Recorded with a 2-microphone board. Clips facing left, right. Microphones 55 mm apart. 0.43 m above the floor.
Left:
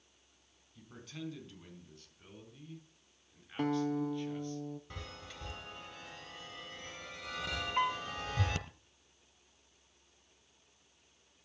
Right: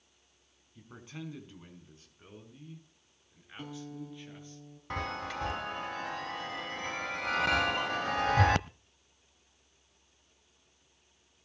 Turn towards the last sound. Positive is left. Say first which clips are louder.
# even
turn(degrees=35)  # may be behind; listen again after turning